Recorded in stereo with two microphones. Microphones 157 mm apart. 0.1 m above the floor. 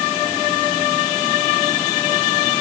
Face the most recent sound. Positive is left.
No sound to turn to.